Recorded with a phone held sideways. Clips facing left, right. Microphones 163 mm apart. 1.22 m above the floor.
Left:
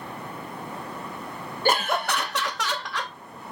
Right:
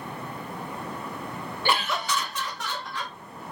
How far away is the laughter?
About 0.8 m.